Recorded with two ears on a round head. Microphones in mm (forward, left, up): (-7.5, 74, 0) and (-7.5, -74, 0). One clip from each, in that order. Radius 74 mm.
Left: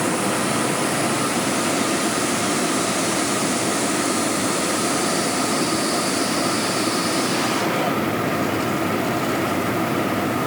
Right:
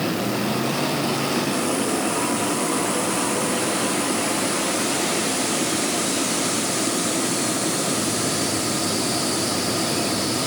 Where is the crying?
No crying in this recording.